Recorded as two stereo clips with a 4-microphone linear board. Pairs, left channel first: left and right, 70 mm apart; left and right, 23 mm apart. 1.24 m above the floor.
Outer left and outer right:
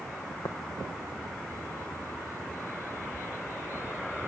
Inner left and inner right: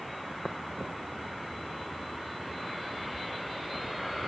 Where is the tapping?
85° left.